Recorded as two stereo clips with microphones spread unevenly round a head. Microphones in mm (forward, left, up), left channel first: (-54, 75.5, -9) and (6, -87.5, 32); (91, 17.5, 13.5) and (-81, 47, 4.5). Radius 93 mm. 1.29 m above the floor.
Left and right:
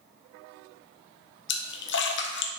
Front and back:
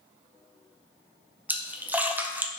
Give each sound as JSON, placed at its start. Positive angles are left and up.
{"t": 1.5, "sound": "a splash", "azimuth_deg": 90, "distance_m": 0.9}